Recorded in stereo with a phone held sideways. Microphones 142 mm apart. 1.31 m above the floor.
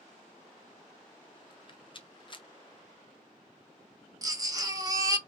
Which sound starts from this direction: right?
A baby crying, at 4.2 s.